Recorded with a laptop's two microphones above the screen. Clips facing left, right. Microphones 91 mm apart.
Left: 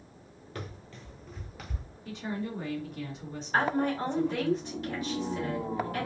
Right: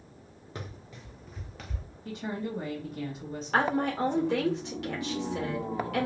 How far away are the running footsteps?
About 1.2 m.